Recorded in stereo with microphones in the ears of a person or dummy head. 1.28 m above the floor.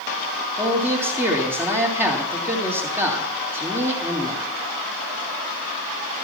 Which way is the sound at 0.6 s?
15° right (ahead or behind).